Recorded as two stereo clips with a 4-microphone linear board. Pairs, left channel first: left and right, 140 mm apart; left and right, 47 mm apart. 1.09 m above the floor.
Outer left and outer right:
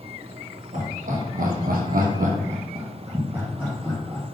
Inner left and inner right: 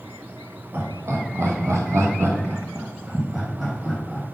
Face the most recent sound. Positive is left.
turn(degrees=5)  # may be behind; listen again after turning